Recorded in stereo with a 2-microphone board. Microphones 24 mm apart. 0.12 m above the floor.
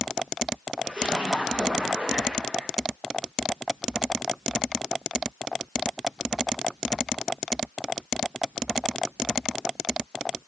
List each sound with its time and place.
0.8 s a splash: 50° right (ahead or behind), 7 m